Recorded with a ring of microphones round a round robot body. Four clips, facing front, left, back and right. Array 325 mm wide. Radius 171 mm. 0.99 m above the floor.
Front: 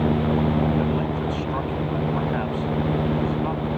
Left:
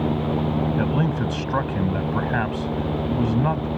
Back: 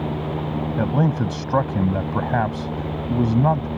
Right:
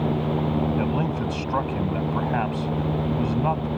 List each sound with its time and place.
0.8 s a man speaking: 165° left